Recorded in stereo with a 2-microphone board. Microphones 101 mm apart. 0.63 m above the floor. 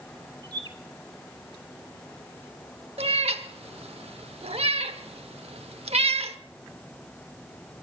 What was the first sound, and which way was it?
A bird, 45° right (ahead or behind).